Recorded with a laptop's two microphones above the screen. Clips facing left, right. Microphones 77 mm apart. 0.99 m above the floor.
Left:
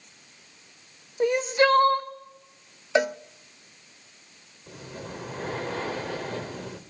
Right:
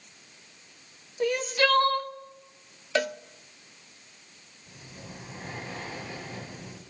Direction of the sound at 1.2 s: 25° left (ahead or behind).